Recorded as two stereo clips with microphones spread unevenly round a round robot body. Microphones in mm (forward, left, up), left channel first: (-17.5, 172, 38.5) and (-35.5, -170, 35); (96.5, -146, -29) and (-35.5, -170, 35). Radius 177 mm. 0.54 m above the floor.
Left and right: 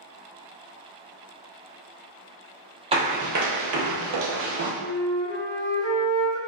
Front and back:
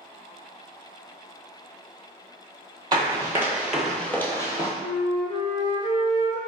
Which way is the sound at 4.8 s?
35° left.